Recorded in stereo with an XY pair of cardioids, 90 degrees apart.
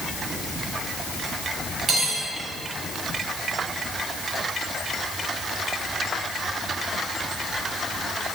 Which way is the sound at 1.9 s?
50° right.